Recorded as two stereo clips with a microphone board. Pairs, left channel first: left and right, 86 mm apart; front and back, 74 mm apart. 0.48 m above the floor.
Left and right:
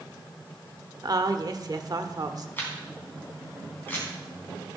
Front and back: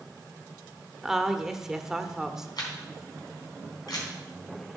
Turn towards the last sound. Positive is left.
turn(degrees=25)